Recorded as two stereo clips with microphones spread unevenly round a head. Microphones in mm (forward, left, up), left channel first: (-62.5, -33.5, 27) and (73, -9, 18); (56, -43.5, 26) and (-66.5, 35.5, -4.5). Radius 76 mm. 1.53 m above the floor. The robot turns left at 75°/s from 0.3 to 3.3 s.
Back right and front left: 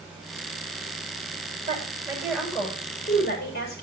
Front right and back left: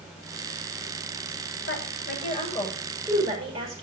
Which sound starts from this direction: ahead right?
A woman speaking, at 1.7 s.